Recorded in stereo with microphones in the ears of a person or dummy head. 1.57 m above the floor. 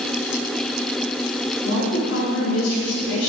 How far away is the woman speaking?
About 3.5 m.